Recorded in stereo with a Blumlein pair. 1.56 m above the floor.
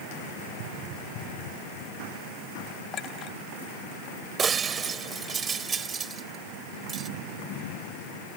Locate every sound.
2.9 s a clink: 30° left
4.4 s breaking glass: 20° right